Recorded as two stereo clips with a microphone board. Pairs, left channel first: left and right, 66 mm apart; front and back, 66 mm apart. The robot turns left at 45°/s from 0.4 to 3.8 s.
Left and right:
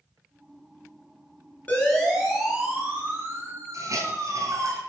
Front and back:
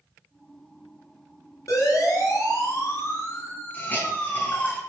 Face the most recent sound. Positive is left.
turn(degrees=-60)